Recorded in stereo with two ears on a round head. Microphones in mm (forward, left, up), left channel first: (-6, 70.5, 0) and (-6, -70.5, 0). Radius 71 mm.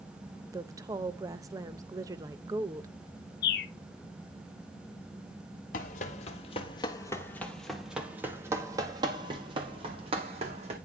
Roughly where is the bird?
Left.